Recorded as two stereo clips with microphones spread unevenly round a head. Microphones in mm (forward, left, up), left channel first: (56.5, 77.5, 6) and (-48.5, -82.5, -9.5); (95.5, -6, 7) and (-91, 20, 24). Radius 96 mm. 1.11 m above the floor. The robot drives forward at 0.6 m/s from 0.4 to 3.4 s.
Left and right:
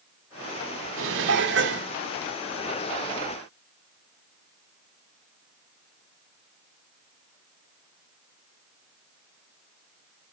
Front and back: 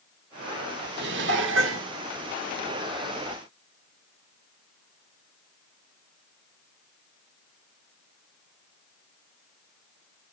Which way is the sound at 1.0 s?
150° right.